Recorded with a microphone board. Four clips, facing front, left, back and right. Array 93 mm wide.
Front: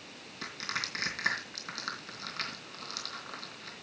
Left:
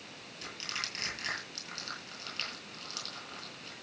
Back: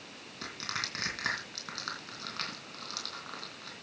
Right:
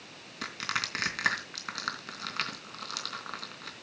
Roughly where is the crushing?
Right.